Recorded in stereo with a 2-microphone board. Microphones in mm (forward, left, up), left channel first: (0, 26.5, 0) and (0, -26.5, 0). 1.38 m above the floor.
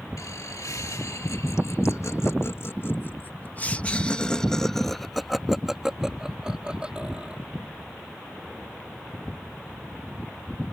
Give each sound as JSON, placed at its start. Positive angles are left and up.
{"t": 0.2, "sound": "laughter", "side_deg": 90}